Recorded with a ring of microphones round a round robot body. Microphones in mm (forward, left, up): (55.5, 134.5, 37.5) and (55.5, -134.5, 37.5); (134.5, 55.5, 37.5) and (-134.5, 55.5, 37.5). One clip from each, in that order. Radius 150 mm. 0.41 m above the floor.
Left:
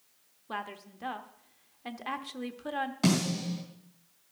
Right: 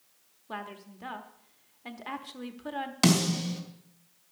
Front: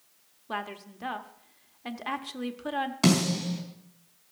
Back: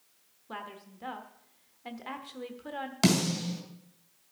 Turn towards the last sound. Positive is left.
turn(degrees=-125)